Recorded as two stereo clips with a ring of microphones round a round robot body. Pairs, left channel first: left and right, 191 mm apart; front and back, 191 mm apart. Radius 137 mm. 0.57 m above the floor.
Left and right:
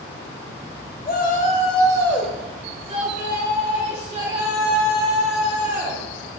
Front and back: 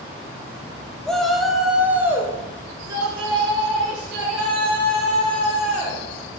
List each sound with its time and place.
1.1 s a shout: 85° left, 0.9 m; by 6.0 s 110° right, 2 m